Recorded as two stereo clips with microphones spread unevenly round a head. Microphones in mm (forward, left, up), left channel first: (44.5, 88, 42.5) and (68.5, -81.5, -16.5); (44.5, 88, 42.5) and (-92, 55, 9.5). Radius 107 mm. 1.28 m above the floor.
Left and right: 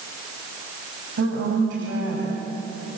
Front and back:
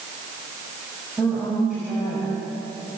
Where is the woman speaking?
75° right, 6.5 m.